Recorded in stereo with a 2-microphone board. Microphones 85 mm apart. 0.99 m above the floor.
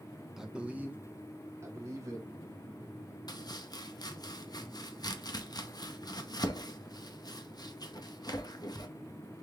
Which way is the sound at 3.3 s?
55° left (ahead or behind).